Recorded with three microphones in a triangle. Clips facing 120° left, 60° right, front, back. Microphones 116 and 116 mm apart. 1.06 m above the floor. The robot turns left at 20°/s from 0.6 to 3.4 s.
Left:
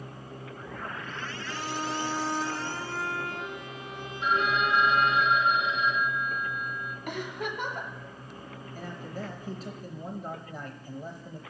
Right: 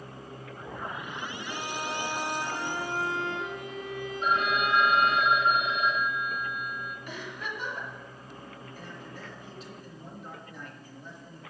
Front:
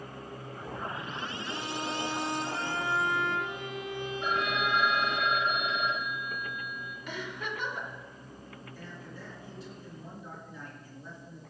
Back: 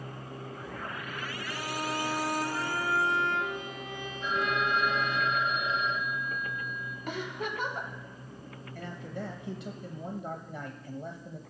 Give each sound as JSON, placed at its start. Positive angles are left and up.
{"t": 1.5, "sound": "a violin", "azimuth_deg": 25, "distance_m": 3.5}
{"t": 4.2, "sound": "a phone ringing", "azimuth_deg": -20, "distance_m": 0.9}
{"t": 7.1, "sound": "a giggle", "azimuth_deg": 135, "distance_m": 1.3}
{"t": 8.8, "sound": "a man speaking", "azimuth_deg": 155, "distance_m": 0.8}